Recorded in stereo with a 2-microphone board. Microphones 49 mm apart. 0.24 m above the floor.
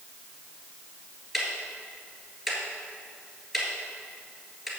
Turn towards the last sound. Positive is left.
turn(degrees=-5)  # may be behind; listen again after turning